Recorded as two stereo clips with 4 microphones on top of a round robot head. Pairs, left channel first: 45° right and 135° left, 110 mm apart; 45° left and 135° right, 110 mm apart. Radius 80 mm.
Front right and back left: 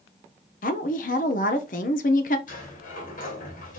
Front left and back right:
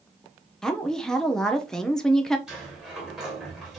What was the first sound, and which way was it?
A woman speaking, 40° right.